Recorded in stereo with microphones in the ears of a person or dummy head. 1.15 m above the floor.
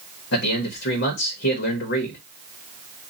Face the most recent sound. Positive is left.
turn(degrees=60)  # may be behind; listen again after turning